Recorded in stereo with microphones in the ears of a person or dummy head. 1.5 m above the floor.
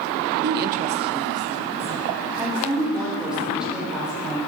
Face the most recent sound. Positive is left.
turn(degrees=5)  # may be behind; listen again after turning